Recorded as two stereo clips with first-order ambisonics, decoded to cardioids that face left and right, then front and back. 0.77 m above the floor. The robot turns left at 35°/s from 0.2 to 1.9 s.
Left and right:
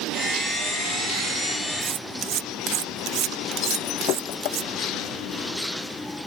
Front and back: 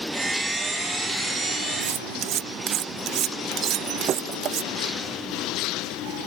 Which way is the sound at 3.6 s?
125° left.